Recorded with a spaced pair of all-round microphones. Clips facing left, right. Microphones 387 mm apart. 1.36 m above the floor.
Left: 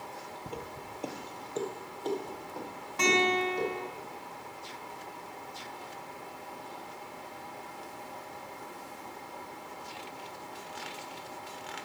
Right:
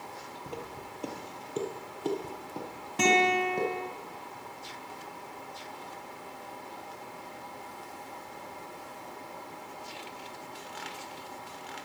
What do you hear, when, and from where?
0.5 s footsteps: 15° left (ahead or behind), 1.5 m; by 3.7 s 65° right (ahead or behind), 3 m
3.0 s a guitar: 45° right (ahead or behind), 1.7 m